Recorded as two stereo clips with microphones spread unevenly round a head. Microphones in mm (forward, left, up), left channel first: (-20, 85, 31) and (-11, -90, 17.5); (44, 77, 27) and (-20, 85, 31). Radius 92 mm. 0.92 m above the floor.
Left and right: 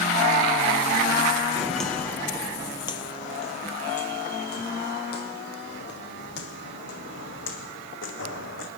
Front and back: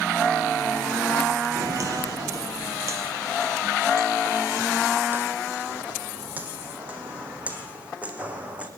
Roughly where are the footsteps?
Behind.